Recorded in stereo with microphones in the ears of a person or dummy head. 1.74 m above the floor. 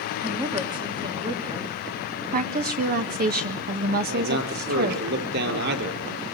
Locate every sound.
0.2 s a woman speaking: 25° right (ahead or behind), 2.5 m
2.3 s a woman speaking: 55° right (ahead or behind), 1.9 m
4.1 s a man speaking: 55° right (ahead or behind), 6 m